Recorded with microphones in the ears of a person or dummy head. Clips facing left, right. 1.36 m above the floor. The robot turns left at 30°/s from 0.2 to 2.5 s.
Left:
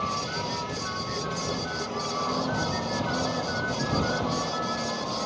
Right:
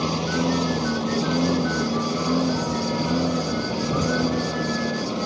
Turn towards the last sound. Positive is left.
turn(degrees=-140)